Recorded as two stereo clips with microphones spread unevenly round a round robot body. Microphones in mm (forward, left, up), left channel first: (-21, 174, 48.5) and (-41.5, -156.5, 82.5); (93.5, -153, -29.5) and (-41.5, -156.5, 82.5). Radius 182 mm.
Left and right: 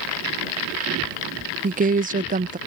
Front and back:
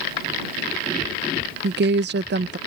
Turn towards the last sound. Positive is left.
turn(degrees=-150)